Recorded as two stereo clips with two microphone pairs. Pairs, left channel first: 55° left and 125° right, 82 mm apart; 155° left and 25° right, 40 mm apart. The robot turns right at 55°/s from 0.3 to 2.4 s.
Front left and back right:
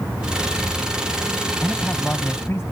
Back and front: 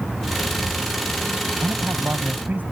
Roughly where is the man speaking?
Ahead right.